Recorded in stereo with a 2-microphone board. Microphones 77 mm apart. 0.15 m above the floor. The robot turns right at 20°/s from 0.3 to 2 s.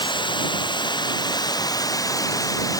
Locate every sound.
0.0 s running water: 95° left; by 2.8 s 130° left